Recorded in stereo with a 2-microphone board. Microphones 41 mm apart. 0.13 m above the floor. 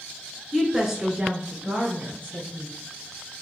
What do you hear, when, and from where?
0.5 s a woman speaking: centre (ahead or behind), 1.7 m; by 2.7 s 55° right (ahead or behind), 2.5 m